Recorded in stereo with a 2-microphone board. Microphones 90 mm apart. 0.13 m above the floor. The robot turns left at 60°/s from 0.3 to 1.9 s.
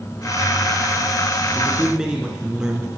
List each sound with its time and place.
1.6 s a man speaking: 20° right (ahead or behind), 2.0 m; by 2.9 s 10° right (ahead or behind), 2.0 m